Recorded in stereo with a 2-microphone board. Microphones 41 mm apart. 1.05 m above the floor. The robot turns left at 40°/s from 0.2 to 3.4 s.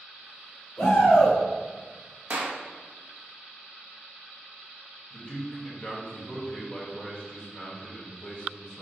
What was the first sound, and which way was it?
A shout, 50° left (ahead or behind).